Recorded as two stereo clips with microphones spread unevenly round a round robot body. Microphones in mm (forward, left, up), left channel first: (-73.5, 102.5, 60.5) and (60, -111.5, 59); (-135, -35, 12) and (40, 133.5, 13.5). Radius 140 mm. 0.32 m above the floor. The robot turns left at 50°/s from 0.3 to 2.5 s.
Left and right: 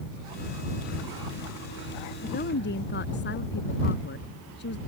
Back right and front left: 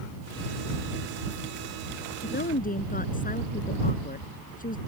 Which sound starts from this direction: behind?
A woman speaking, at 2.2 s.